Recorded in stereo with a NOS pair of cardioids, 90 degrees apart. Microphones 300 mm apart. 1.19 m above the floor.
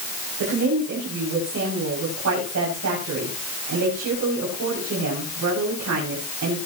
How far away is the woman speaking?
About 6.5 m.